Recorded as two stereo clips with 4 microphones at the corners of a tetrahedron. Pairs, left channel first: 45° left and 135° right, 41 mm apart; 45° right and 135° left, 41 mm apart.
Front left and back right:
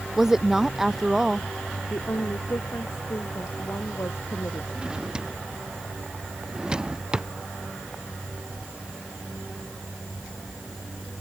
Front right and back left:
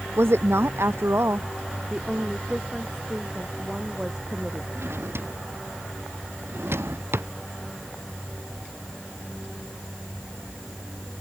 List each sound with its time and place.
0.2 s a woman speaking: 145° left
1.9 s a woman speaking: 65° left
4.8 s a drawer: 150° left